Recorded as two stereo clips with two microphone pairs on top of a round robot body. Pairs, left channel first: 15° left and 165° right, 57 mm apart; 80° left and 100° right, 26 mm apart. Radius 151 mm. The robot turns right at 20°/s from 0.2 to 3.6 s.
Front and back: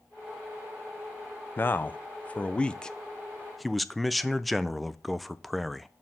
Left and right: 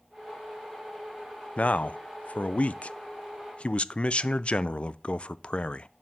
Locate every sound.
1.6 s a man speaking: 70° left, 0.5 m; by 5.9 s 115° left, 0.5 m